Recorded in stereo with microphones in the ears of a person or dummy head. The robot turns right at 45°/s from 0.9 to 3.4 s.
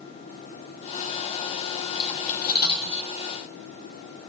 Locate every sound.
1.9 s cutlery clinking: 30° left (ahead or behind), 1.0 m; by 3.1 s 65° left (ahead or behind), 1.0 m